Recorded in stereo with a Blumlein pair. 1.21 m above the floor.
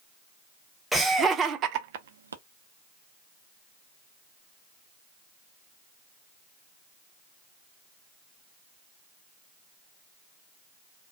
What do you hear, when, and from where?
0.9 s laughter: 5° right, 0.7 m; by 2.4 s 75° right, 0.6 m